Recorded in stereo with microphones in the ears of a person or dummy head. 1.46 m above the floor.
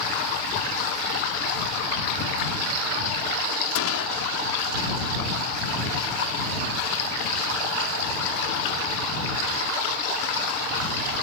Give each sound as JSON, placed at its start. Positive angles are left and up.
{"t": 3.8, "sound": "a gunshot", "side_deg": 85}